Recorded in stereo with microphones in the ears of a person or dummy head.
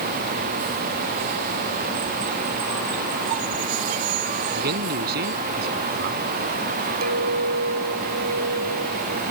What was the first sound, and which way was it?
A man speaking, 50° right (ahead or behind).